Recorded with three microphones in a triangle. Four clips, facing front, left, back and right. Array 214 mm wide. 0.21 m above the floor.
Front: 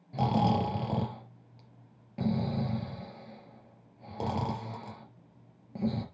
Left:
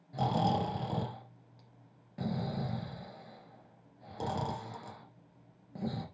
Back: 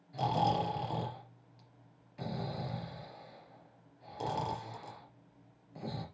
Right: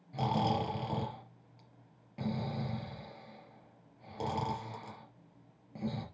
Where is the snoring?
10° left, 3 m.